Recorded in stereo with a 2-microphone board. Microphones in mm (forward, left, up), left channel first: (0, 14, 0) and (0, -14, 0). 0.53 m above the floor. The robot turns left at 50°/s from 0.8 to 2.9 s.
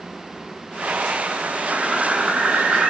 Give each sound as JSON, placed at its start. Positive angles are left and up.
{"t": 1.7, "sound": "a bird", "azimuth_deg": -45, "distance_m": 1.4}